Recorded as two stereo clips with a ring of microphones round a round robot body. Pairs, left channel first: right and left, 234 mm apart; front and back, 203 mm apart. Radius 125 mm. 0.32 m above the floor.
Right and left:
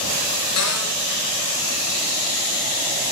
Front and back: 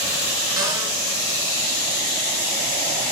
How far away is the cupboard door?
About 5 m.